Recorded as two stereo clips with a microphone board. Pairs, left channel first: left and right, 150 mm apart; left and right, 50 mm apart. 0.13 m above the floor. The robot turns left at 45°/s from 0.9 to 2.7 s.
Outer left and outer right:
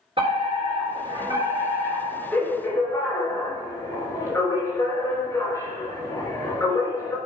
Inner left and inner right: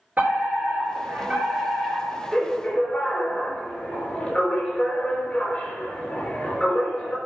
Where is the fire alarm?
125° right, 3.5 m; by 7.2 s 155° left, 3.5 m.